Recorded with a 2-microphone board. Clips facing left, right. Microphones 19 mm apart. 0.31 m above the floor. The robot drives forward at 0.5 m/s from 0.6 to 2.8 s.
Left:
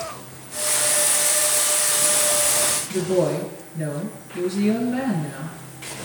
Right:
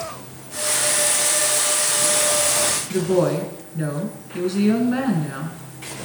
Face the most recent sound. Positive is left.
turn(degrees=-65)  # may be behind; listen again after turning